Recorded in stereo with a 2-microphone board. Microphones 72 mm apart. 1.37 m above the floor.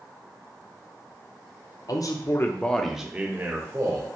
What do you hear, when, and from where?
1.9 s a man speaking: 60° left (ahead or behind), 0.6 m; by 4.1 s 40° right (ahead or behind), 0.9 m